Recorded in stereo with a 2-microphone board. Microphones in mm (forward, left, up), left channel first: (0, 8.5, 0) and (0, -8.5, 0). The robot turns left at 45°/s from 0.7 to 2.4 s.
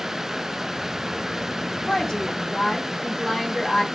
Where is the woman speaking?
40° left (ahead or behind), 1.0 m; by 3.8 s 20° left (ahead or behind), 1.0 m.